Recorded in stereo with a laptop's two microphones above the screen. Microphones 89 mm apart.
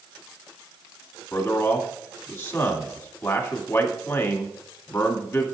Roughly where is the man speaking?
Left.